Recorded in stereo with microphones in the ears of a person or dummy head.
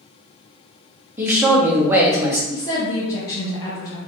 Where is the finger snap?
No finger snap in this recording.